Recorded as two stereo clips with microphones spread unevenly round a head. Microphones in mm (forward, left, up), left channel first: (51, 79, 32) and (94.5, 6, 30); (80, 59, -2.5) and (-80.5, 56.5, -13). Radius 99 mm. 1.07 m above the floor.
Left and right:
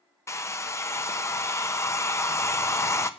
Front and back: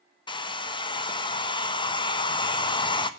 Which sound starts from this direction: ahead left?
A hair dryer, at 0.3 s.